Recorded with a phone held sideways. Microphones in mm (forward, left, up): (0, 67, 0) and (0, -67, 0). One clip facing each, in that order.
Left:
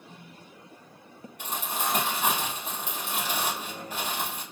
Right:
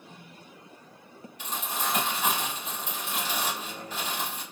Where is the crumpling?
60° left (ahead or behind), 1.6 m.